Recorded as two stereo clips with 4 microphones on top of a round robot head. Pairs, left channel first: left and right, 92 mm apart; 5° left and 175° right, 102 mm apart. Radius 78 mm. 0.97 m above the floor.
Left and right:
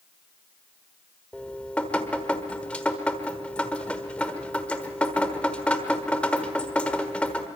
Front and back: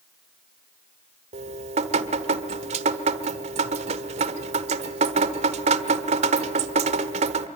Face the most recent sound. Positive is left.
turn(degrees=170)